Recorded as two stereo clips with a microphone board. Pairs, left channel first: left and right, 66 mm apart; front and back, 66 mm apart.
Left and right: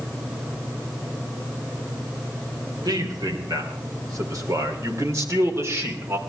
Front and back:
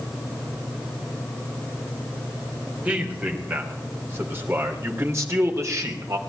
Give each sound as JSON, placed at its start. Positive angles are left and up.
{"t": 2.9, "sound": "a man speaking", "azimuth_deg": -110, "distance_m": 3.5}